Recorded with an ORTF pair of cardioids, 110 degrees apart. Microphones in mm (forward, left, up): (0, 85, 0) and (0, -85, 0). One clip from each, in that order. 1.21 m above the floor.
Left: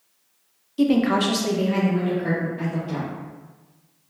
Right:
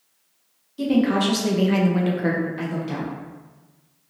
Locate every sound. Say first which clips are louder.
0.8 s a woman speaking: left 1 dB; 30° left, 0.7 m; by 3.1 s 75° right, 1.1 m